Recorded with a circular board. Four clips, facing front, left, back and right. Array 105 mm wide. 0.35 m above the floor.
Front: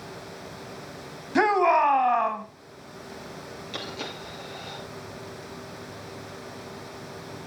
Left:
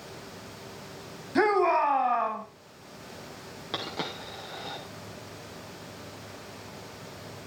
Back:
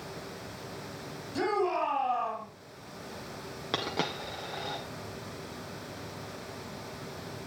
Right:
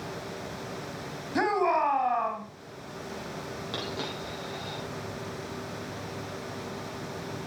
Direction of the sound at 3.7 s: 165° left.